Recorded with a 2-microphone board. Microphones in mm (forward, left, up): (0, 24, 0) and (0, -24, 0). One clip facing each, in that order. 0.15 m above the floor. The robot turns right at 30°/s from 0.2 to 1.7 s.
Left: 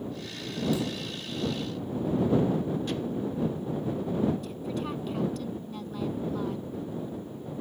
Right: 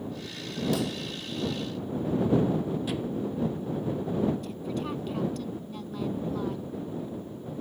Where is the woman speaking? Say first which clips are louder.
Even; centre (ahead or behind).